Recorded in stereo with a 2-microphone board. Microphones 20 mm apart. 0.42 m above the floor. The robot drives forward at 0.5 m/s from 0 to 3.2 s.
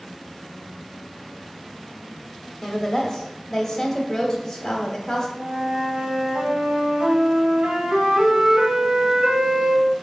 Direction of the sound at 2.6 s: 20° left (ahead or behind).